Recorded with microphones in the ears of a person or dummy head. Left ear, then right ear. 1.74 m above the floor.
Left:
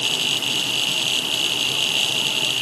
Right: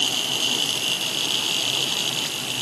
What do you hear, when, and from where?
Only background noise.